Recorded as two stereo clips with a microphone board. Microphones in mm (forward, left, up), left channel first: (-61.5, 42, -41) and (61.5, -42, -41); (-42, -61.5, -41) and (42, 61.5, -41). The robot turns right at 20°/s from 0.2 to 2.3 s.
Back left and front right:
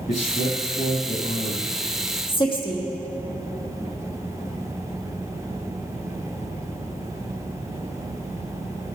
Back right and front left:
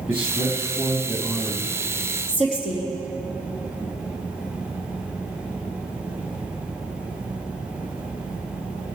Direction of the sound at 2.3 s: 90° left.